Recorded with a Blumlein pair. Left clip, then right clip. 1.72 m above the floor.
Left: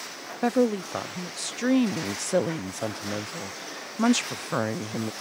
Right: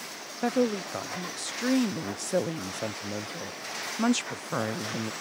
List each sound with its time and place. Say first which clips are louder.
0.4 s a woman speaking: left 3 dB; 10° left